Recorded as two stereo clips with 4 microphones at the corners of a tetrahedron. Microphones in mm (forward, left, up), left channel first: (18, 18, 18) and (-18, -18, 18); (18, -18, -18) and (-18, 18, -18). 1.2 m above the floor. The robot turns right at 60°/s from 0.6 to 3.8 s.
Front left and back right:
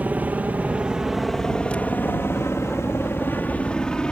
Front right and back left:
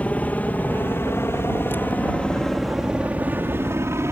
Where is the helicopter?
90° right; by 4.1 s 120° left.